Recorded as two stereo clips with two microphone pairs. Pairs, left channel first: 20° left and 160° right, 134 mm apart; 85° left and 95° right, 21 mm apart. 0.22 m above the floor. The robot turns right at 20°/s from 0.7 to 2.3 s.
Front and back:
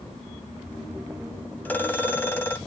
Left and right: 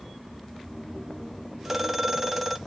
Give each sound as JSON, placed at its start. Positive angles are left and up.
{"t": 1.6, "sound": "a phone ringing", "azimuth_deg": -45, "distance_m": 0.8}